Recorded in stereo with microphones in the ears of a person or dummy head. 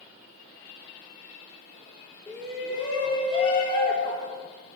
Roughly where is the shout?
Centre.